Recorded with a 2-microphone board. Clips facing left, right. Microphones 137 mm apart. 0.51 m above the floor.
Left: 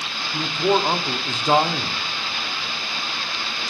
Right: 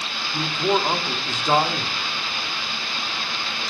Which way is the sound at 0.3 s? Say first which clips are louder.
Left 2 dB; 10° left (ahead or behind).